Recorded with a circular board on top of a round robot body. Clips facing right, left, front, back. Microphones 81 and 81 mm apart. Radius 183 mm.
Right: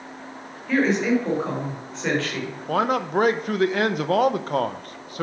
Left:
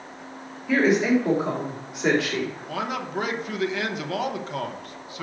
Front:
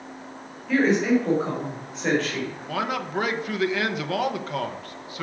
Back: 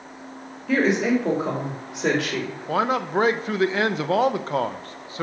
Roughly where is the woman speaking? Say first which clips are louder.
Left 1 dB, even; behind.